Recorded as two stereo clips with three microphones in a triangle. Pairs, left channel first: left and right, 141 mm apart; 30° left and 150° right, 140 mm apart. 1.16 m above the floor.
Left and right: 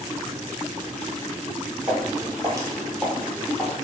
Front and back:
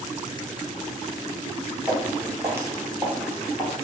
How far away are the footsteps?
About 1.4 m.